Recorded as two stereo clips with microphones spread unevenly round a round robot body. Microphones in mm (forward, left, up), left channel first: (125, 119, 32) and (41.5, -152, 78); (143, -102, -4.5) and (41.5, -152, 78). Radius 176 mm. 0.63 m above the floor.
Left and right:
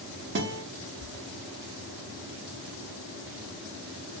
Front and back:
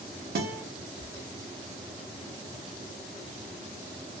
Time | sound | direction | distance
0.3 | a guitar | 160° right | 0.5 m